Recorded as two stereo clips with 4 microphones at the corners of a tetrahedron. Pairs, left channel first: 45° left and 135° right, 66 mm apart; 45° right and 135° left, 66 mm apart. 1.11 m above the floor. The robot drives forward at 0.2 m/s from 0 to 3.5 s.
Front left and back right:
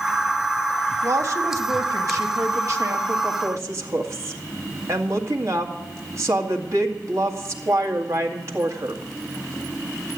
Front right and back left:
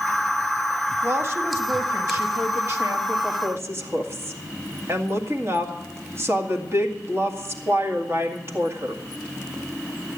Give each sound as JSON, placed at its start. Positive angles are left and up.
{"t": 1.0, "sound": "a woman speaking", "azimuth_deg": -175, "distance_m": 1.4}